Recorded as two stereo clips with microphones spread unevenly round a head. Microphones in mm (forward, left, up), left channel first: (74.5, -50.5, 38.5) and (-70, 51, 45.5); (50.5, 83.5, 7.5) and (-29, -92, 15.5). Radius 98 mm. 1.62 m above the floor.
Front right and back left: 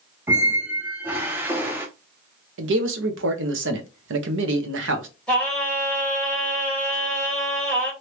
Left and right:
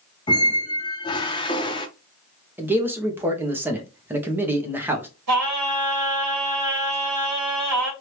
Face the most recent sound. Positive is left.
turn(degrees=-120)